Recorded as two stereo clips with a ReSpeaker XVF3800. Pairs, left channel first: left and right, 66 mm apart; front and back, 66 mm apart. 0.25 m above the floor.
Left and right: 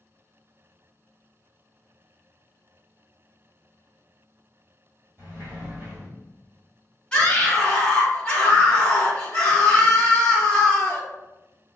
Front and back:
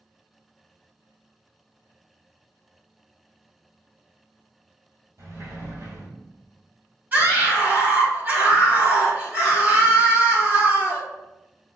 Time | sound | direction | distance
5.2 | a sliding door | 145° right | 1.8 m
7.1 | a scream | 155° left | 1.8 m